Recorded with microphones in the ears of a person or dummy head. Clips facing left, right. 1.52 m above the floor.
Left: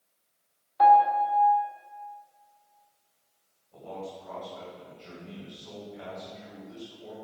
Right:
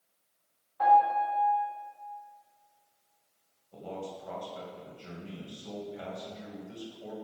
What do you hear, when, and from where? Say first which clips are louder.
0.8 s a piano: left 4 dB; 75° left (ahead or behind), 2 m
3.7 s a man speaking: even; 45° right (ahead or behind), 2 m